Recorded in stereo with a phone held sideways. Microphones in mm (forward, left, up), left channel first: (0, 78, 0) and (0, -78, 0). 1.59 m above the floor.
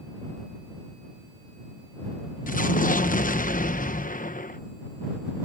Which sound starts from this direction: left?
An explosion, at 2.5 s.